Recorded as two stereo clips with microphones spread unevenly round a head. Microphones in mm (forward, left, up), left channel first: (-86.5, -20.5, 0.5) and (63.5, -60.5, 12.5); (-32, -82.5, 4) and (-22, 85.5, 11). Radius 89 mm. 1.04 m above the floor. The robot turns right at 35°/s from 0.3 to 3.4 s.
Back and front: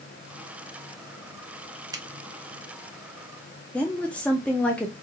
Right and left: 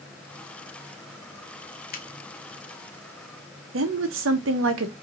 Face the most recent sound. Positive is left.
turn(degrees=85)